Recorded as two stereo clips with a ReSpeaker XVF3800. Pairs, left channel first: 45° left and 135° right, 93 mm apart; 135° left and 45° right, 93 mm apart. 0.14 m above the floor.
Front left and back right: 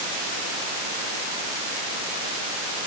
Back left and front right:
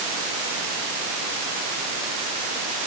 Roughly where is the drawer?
I don't hear a drawer.